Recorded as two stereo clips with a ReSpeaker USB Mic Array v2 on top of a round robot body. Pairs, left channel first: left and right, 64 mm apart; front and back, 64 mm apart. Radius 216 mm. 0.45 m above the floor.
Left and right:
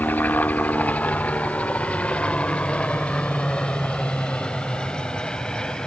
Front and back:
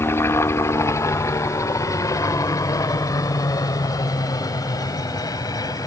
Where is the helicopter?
35° left; by 5.9 s 15° left.